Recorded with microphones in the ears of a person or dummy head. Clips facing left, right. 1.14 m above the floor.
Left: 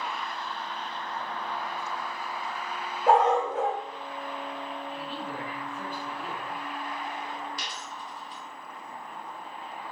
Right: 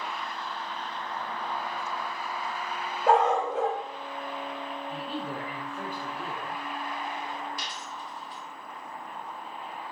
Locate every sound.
3.1 s a dog barking: centre (ahead or behind), 1.0 m
4.9 s a man speaking: 35° right (ahead or behind), 0.8 m
7.6 s a dropped coin: 55° left (ahead or behind), 1.3 m